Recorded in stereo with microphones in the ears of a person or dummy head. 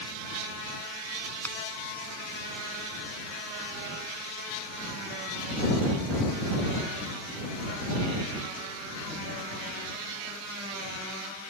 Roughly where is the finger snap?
Centre.